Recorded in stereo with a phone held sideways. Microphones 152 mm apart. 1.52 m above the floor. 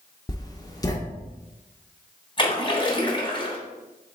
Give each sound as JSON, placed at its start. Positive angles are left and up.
{"t": 0.3, "sound": "writing", "side_deg": 25, "distance_m": 0.6}
{"t": 2.4, "sound": "a splash", "side_deg": 30, "distance_m": 1.1}